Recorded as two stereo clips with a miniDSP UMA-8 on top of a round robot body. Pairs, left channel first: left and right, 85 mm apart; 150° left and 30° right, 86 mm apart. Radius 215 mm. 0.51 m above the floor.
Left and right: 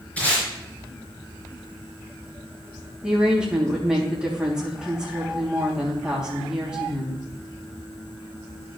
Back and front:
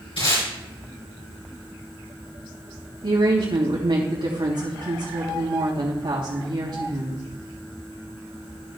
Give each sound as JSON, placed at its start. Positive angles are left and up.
{"t": 0.2, "sound": "tape being pulled", "azimuth_deg": 165, "distance_m": 5.0}
{"t": 3.0, "sound": "a woman speaking", "azimuth_deg": -5, "distance_m": 3.0}